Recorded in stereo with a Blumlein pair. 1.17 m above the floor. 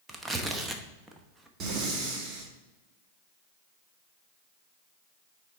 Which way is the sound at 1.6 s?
30° right.